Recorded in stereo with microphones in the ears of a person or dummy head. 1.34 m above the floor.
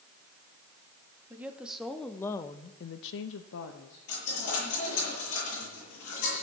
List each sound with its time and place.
1.3 s a woman speaking: 15° right (ahead or behind), 1.7 m; by 4.0 s 65° left (ahead or behind), 1.4 m
4.1 s a dropped coin: 80° left, 8 m